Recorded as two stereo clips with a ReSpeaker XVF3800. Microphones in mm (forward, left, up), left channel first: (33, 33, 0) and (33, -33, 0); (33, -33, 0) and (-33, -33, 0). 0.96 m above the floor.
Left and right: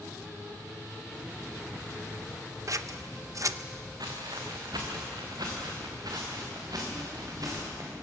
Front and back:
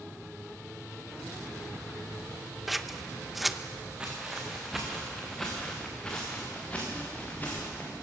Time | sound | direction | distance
2.7 | scissors | 90° right | 0.7 m
4.0 | footsteps | 105° right | 4 m